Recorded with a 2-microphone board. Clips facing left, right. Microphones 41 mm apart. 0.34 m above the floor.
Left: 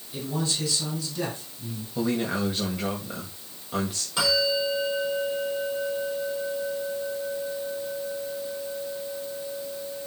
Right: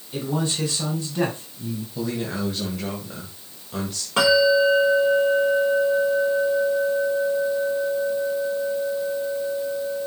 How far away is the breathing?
I don't hear breathing.